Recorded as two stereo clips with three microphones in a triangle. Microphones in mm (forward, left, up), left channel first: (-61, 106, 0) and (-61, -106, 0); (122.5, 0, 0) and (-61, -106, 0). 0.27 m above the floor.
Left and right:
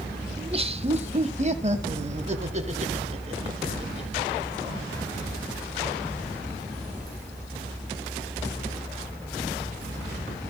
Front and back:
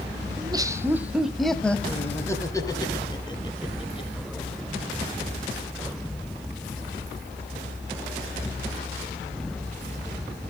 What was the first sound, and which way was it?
Laughter, 110° right.